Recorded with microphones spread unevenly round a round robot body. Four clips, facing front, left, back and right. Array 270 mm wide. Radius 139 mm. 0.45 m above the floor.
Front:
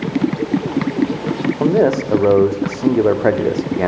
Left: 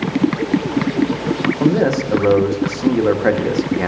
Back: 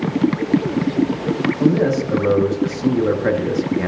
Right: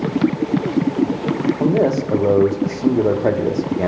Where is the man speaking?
Straight ahead, 0.9 m.